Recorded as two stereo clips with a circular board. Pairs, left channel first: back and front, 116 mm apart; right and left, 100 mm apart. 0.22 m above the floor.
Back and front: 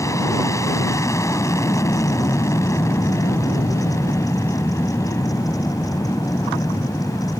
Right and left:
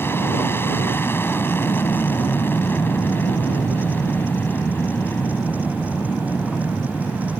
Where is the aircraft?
140° right.